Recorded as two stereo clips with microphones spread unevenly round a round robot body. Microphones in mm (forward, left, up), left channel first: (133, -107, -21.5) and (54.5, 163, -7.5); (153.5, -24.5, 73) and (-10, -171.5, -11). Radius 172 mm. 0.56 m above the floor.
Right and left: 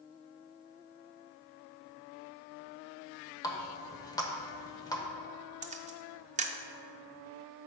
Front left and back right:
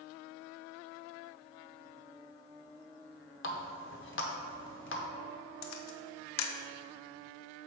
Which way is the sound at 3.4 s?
Straight ahead.